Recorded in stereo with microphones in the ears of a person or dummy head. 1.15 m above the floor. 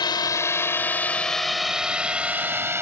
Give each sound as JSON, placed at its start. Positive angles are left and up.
{"t": 0.0, "sound": "a drone", "side_deg": 20}